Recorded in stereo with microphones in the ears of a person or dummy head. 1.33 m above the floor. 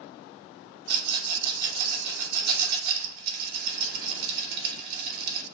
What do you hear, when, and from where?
0.9 s a rattle: 45° right (ahead or behind), 0.8 m